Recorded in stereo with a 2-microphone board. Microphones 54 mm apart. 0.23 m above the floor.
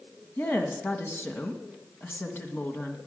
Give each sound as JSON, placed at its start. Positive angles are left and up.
{"t": 0.4, "sound": "a woman speaking", "side_deg": 45, "distance_m": 2.0}